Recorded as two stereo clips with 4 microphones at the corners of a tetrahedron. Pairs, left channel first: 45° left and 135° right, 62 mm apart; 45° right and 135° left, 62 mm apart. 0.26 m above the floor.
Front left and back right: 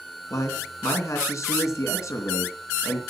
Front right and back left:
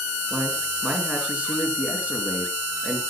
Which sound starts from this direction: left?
A man speaking, at 0.3 s.